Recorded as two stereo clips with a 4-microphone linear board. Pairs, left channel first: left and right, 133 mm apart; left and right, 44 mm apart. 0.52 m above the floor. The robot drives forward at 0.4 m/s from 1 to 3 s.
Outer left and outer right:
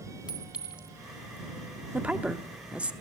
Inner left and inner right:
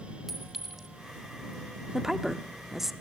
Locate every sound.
0.3 s a clink: 5° right (ahead or behind), 2.5 m
1.9 s a woman speaking: 10° right (ahead or behind), 0.7 m